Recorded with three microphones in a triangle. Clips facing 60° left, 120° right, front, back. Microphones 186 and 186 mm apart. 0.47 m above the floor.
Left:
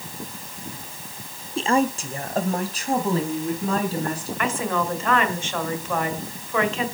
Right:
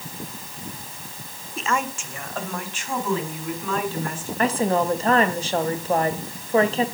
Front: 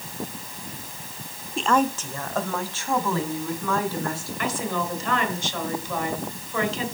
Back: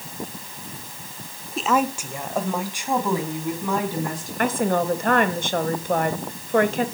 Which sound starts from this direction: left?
A woman speaking, at 1.6 s.